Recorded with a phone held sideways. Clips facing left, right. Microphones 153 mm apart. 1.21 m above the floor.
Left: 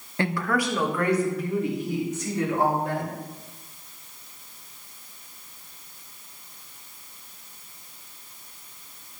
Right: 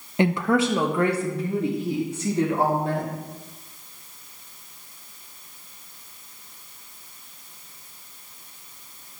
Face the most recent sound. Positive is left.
turn(degrees=-30)  # may be behind; listen again after turning